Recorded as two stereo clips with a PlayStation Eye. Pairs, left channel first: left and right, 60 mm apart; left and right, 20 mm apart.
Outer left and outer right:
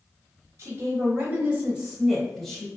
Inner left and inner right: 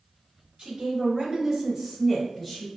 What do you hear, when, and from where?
0.6 s a woman speaking: 45° right (ahead or behind), 1.2 m; by 2.7 s 10° left (ahead or behind), 1.3 m